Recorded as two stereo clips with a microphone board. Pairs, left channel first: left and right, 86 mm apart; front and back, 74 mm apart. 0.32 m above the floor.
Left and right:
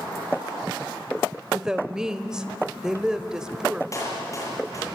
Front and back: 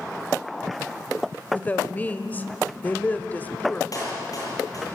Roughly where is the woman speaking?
Ahead.